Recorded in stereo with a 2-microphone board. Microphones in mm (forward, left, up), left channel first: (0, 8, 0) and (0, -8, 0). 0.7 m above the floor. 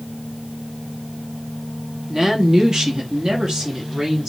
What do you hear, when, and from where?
2.1 s a woman speaking: 25° right (ahead or behind), 1.1 m; by 4.3 s 55° right (ahead or behind), 1.7 m